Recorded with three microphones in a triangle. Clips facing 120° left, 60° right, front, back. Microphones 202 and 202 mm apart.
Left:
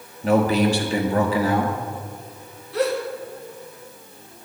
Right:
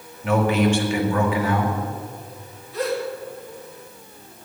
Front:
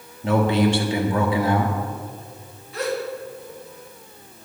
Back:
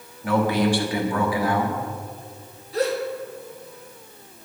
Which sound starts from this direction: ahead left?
A man speaking, at 0.2 s.